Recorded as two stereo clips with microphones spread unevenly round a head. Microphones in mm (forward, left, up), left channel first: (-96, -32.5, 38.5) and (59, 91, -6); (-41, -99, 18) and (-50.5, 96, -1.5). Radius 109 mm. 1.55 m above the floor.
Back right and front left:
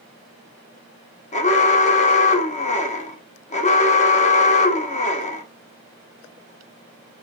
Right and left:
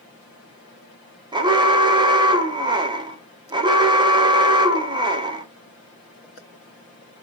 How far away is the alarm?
About 0.8 m.